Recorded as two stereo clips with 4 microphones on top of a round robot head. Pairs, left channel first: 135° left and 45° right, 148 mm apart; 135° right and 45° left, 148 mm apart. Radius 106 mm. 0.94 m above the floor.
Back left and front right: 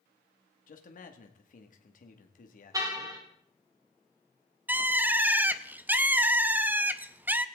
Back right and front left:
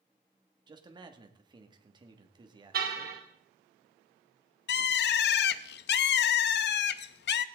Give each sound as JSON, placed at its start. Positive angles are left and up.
{"t": 0.7, "sound": "a man speaking", "azimuth_deg": 105, "distance_m": 2.0}
{"t": 2.7, "sound": "a car horn", "azimuth_deg": 20, "distance_m": 3.0}
{"t": 4.7, "sound": "a bird", "azimuth_deg": -125, "distance_m": 0.5}